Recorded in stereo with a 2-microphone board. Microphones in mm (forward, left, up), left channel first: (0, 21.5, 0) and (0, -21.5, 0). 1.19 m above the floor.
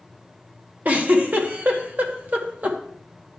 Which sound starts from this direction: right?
A giggle, at 0.8 s.